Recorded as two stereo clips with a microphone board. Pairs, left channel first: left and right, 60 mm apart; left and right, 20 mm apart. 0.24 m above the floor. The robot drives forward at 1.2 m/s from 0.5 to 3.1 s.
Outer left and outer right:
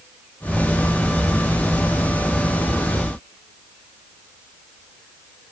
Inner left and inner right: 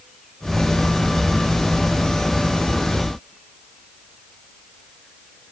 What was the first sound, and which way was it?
Only background noise.